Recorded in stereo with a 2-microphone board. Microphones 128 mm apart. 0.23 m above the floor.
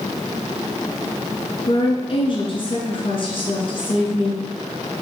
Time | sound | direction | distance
1.7 | a woman speaking | 45° left (ahead or behind) | 3 m